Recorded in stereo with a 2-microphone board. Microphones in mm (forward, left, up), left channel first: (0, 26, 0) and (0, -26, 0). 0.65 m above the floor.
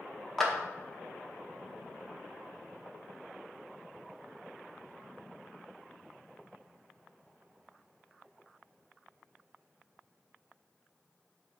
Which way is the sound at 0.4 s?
5° left (ahead or behind).